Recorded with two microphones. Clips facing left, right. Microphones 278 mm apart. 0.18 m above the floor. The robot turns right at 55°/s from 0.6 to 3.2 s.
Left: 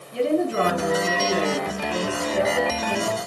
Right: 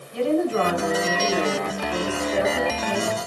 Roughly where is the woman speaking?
Left.